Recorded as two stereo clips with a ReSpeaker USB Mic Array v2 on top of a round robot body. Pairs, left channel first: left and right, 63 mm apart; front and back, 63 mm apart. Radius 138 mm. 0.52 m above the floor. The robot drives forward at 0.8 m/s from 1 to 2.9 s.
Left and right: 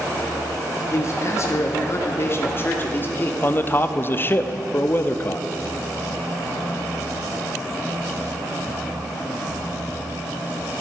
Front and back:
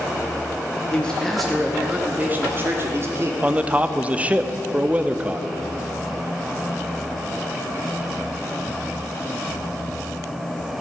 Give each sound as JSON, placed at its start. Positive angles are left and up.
{"t": 0.9, "sound": "a man speaking", "azimuth_deg": 70, "distance_m": 1.4}
{"t": 3.4, "sound": "a man speaking", "azimuth_deg": 125, "distance_m": 0.8}